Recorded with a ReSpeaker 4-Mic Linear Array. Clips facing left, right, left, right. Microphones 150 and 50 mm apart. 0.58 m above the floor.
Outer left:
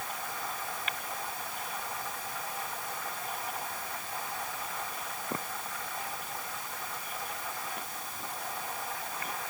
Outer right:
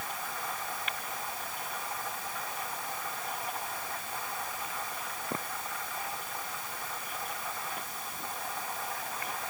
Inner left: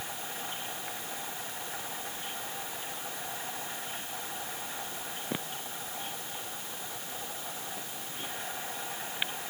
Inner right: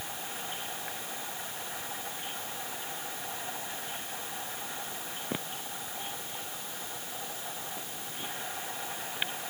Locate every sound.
Only background noise.